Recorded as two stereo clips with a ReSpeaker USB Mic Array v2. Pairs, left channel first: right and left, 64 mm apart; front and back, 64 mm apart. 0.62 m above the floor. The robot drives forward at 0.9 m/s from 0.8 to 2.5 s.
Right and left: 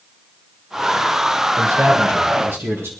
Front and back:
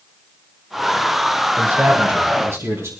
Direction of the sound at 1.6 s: 125° left.